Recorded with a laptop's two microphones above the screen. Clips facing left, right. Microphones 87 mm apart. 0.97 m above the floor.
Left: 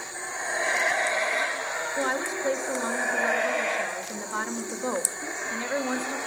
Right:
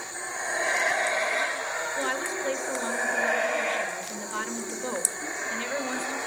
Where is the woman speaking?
20° left (ahead or behind), 1.1 m.